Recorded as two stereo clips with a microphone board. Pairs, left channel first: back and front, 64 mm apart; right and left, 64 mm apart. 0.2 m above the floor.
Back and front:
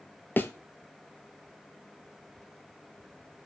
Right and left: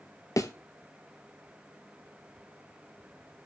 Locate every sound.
0.4 s a thud: 120° right, 0.8 m